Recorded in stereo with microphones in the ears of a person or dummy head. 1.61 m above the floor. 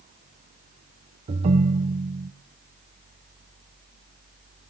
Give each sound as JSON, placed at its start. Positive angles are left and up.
{"t": 1.3, "sound": "a ringtone", "side_deg": -35, "distance_m": 0.7}